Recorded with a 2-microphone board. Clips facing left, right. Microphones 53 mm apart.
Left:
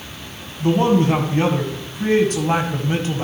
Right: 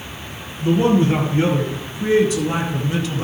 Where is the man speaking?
65° left (ahead or behind), 2.5 m; by 3.2 s 35° left (ahead or behind), 1.7 m.